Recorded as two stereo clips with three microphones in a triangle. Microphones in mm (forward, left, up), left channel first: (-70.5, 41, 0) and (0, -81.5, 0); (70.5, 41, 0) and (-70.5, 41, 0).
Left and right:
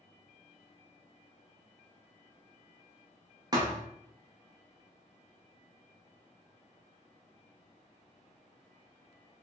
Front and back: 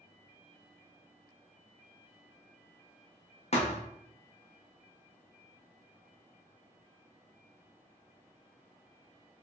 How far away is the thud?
About 0.5 m.